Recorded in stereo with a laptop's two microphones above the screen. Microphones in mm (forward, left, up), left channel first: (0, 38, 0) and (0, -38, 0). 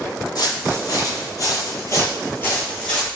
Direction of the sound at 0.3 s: 60° left (ahead or behind).